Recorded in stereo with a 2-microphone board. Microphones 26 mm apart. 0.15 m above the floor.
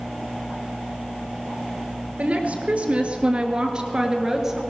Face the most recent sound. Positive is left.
turn(degrees=-10)  # may be behind; listen again after turning